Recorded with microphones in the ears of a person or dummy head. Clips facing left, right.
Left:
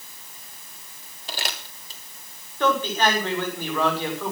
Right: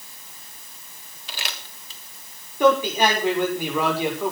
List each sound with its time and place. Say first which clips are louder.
1.3 s crumpling: left 4 dB; 35° left (ahead or behind), 3 m
2.6 s a man speaking: right 4 dB; 10° right (ahead or behind), 6.5 m